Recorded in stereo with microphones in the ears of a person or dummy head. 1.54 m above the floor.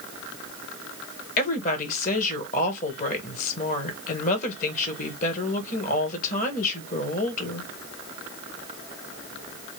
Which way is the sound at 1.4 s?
40° left (ahead or behind).